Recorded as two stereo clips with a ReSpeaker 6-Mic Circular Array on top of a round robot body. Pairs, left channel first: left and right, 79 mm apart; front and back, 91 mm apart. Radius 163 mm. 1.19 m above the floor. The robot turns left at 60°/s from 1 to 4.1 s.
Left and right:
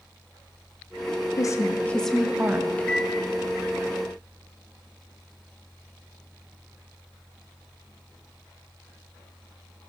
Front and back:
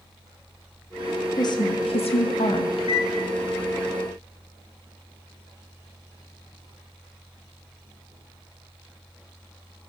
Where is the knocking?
No knocking in this recording.